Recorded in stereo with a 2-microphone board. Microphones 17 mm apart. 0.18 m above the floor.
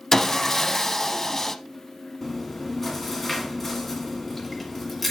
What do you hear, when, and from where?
0.1 s sawing: 20° left (ahead or behind), 0.6 m
2.2 s chewing: 10° left (ahead or behind), 1.6 m